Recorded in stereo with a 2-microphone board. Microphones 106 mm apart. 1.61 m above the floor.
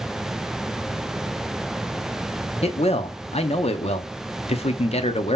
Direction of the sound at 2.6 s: 75° left (ahead or behind).